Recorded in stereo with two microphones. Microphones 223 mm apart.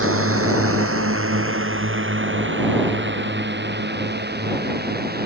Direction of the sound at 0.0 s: 70° right (ahead or behind).